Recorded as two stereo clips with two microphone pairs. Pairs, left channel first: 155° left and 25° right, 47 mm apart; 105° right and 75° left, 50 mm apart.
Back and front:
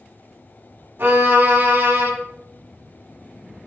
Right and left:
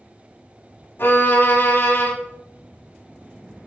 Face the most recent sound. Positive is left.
turn(degrees=-70)